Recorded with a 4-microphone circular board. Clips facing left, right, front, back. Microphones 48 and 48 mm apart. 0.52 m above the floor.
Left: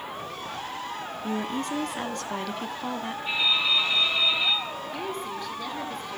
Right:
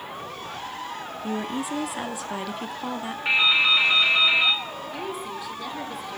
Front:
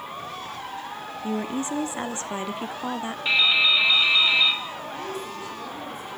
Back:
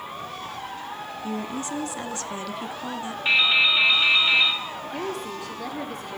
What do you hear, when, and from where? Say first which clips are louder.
1.2 s a woman speaking: right 1 dB, front 3 dB; 10° right, 1.0 m
3.2 s dripping: right 6 dB, back 1 dB; 105° right, 1.9 m
4.9 s a woman speaking: right 1 dB, back 2 dB; 175° right, 4.5 m